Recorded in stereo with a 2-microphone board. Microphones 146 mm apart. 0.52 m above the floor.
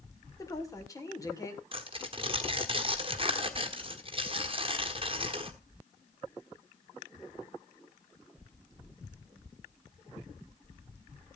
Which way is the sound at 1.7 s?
40° right (ahead or behind).